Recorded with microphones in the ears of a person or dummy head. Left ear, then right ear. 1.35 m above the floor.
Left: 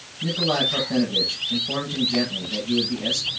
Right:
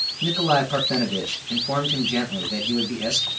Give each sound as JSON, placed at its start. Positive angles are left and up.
{"t": 0.2, "sound": "a man speaking", "side_deg": -85, "distance_m": 7.0}